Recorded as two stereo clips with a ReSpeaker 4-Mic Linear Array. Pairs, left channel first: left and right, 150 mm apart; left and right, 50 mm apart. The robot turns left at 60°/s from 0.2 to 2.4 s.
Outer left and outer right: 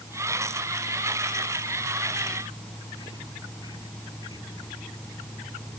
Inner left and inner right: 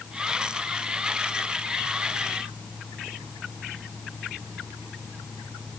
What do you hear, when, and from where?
Only background noise.